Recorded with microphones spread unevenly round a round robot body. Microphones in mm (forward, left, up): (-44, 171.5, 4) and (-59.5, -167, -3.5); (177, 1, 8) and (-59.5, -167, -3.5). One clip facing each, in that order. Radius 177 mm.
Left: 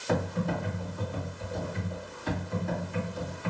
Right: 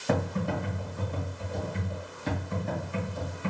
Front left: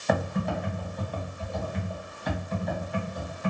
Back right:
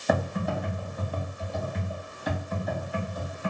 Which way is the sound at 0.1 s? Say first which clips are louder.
Right 1 dB, even; 60° right.